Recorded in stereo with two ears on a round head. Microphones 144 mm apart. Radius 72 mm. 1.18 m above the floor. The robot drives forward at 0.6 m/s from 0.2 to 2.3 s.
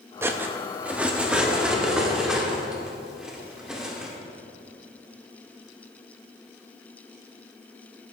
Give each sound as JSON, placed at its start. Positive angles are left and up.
{"t": 0.2, "sound": "cutlery clinking", "side_deg": -15, "distance_m": 0.6}